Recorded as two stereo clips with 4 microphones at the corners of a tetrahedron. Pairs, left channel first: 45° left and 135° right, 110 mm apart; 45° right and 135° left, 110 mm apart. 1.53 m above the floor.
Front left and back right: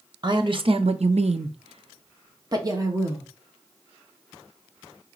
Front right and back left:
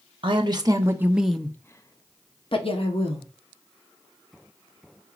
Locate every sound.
0.2 s a woman speaking: 175° left, 0.8 m; by 3.3 s 70° right, 1.2 m